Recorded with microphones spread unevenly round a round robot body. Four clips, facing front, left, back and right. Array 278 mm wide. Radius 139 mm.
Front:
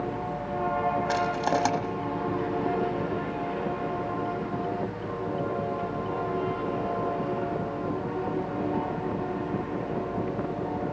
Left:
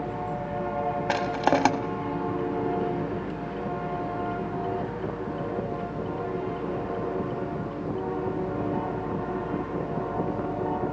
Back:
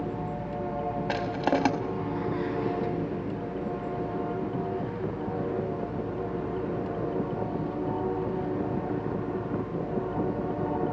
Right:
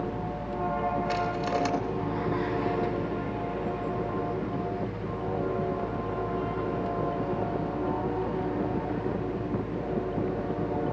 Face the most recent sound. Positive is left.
turn(degrees=90)